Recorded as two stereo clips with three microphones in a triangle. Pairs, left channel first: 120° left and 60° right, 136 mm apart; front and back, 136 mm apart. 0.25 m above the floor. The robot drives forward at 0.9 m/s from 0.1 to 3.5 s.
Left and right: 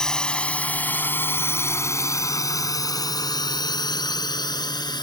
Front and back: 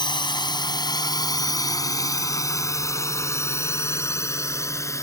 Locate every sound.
0.0 s a drone: 35° left; by 5.0 s 65° left